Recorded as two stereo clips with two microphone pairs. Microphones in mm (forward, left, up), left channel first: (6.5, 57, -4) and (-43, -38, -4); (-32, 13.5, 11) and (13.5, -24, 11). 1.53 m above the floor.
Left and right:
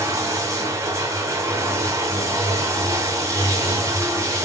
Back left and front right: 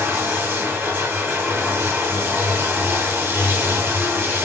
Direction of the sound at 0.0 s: 75° right.